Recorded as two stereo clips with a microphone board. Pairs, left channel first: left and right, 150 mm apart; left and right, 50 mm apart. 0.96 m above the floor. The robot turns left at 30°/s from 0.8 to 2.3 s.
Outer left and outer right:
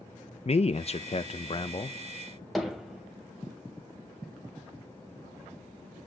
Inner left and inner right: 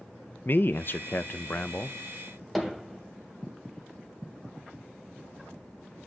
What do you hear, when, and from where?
0.5 s a man speaking: 85° left, 0.5 m; by 2.0 s 50° left, 0.5 m
2.5 s hammering: centre (ahead or behind), 2.5 m